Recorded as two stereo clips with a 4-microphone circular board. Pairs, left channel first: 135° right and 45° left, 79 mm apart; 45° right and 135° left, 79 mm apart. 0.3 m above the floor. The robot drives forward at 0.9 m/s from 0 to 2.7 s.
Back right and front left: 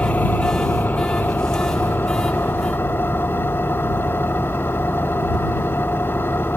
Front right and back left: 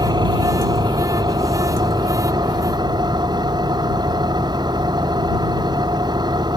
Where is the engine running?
160° left; by 6.6 s 165° left.